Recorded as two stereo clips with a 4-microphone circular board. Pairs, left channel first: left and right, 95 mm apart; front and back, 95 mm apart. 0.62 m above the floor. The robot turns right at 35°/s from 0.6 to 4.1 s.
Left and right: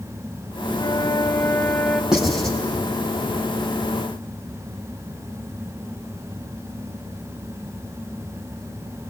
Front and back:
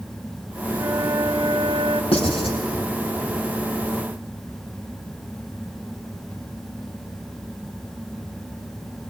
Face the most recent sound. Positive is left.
turn(degrees=60)